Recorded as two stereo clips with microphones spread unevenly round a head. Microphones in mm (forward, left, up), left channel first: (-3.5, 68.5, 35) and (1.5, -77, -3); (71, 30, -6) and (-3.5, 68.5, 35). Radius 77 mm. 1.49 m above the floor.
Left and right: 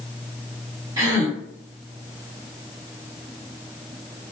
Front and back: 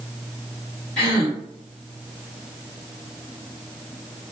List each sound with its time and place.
1.0 s a gasp: 165° right, 1.2 m